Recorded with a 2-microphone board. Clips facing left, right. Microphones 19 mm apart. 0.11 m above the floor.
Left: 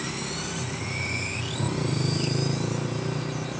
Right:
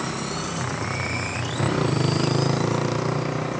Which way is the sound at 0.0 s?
80° right.